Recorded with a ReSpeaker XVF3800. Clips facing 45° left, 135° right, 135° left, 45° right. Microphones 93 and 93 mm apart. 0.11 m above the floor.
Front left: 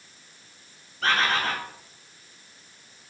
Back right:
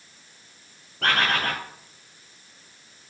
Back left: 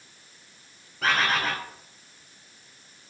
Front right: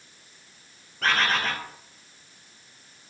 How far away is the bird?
About 1.5 m.